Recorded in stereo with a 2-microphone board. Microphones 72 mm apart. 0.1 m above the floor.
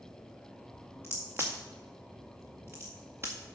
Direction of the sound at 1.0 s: 35° right (ahead or behind).